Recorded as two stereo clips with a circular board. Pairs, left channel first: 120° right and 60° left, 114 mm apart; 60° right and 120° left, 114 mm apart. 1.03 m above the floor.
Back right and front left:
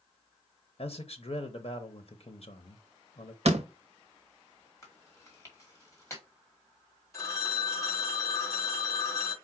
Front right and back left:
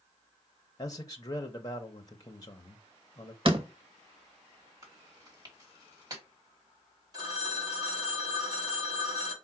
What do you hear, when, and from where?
0.8 s a man speaking: 115° right, 0.7 m
3.5 s a door slam: 80° left, 0.7 m
4.8 s chewing: 175° left, 1.9 m
7.1 s a phone ringing: 175° left, 1.4 m